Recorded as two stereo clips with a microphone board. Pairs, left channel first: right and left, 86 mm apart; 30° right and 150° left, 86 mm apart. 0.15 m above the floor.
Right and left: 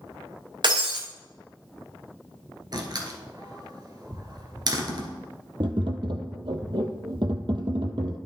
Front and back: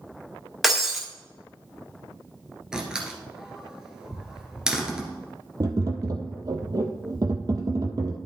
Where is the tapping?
110° left, 1.0 m.